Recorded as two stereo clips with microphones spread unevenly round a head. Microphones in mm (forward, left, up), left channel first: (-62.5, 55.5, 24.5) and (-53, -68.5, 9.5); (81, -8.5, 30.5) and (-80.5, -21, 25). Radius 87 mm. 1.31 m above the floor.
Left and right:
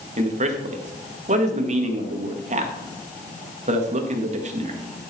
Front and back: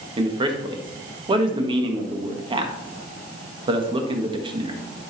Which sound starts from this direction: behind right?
A man speaking, at 0.2 s.